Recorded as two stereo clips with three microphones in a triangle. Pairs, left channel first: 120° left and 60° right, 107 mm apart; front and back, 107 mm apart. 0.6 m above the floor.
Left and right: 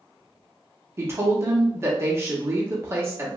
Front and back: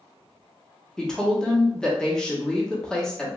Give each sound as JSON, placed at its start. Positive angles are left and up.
{"t": 1.0, "sound": "a woman speaking", "azimuth_deg": -75, "distance_m": 0.9}